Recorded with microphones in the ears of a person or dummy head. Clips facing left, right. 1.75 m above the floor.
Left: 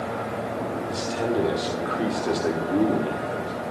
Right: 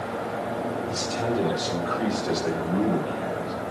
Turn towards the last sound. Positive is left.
turn(degrees=40)  # may be behind; listen again after turning